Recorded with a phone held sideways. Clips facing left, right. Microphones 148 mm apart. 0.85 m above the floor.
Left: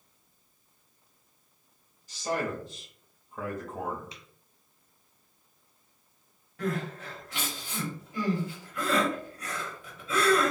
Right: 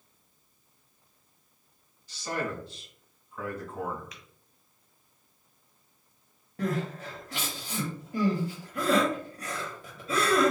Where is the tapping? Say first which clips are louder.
Left 1 dB; 30° left (ahead or behind), 0.9 m.